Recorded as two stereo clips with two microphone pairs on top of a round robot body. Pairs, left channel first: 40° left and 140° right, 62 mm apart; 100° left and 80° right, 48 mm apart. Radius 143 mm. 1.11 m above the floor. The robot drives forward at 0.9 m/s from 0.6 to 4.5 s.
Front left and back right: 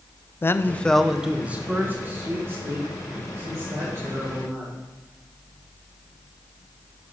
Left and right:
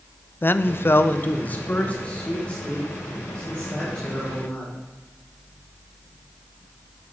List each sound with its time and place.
0.4 s a man speaking: 85° left, 0.6 m; by 4.8 s 170° left, 3.5 m